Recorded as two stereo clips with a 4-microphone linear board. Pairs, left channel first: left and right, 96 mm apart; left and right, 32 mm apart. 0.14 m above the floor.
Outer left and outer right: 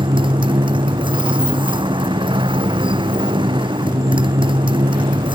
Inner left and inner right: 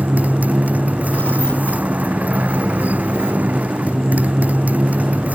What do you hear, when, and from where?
0.0 s a motorcycle: 60° right (ahead or behind)